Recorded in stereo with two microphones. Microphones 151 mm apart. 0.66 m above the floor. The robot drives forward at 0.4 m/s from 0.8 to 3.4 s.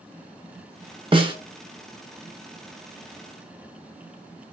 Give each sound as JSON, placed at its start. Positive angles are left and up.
{"t": 1.1, "sound": "a snare drum", "side_deg": -35, "distance_m": 0.6}